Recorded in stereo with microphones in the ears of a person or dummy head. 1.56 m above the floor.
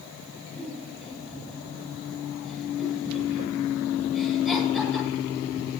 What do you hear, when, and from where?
0.6 s a giggle: centre (ahead or behind), 9 m